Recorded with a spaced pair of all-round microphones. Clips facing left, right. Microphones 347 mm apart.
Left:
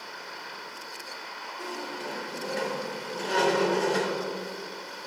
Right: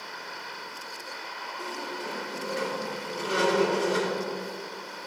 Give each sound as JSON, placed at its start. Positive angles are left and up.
{"t": 1.6, "sound": "a squeak", "side_deg": -10, "distance_m": 2.5}